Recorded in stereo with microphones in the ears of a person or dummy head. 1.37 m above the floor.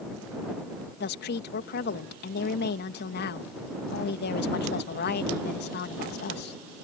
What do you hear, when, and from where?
1.0 s a woman speaking: 60° left (ahead or behind)